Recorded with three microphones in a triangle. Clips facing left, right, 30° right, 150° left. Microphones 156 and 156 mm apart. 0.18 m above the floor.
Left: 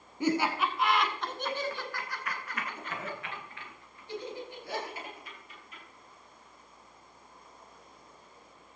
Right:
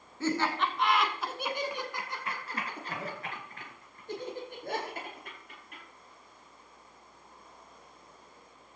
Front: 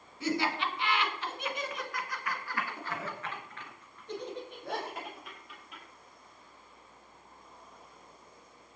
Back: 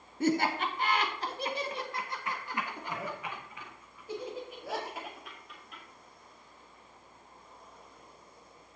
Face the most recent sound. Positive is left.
turn(degrees=-120)